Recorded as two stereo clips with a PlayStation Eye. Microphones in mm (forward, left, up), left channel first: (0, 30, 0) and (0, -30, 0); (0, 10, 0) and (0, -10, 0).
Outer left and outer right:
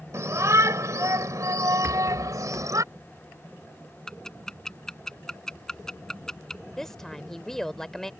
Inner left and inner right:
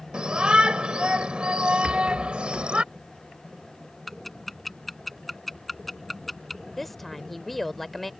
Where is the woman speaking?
5° left (ahead or behind).